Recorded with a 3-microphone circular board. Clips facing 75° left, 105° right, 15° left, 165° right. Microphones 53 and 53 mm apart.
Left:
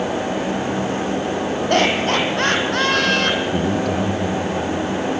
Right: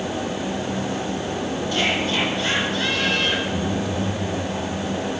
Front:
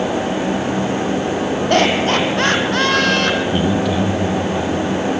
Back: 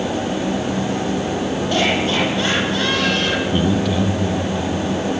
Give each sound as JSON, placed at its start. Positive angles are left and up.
{"t": 1.7, "sound": "laughter", "azimuth_deg": 45, "distance_m": 5.5}
{"t": 3.5, "sound": "a man speaking", "azimuth_deg": 100, "distance_m": 4.0}